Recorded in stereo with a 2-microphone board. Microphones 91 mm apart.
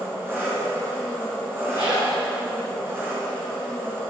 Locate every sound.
0.0 s an engine running: 25° right (ahead or behind), 2.5 m
1.7 s a zipper: 50° right (ahead or behind), 3.5 m